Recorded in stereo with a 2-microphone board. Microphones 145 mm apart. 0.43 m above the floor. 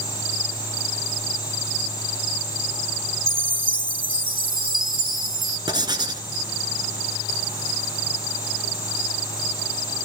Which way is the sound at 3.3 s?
85° right.